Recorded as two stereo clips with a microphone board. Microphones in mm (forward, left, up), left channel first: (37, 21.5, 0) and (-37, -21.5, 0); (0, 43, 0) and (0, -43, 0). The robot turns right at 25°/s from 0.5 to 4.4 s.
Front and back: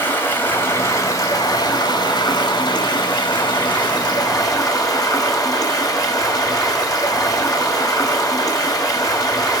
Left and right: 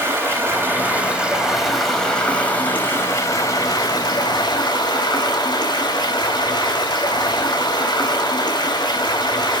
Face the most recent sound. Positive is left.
turn(degrees=65)